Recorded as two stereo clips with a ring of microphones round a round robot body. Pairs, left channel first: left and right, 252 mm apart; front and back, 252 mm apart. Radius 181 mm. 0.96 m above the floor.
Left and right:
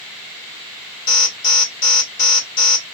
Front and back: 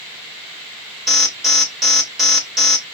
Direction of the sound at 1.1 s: 90° left.